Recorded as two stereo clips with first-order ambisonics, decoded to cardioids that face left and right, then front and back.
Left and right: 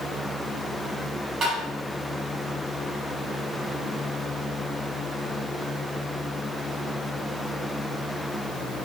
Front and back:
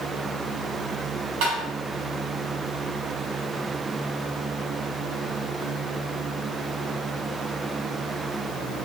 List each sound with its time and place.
1.4 s tapping: 160° right, 1.2 m